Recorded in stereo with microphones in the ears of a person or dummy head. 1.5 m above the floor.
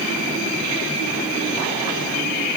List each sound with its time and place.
Only background noise.